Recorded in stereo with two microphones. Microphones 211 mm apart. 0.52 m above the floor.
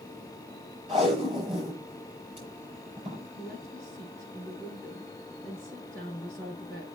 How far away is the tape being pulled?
About 6 m.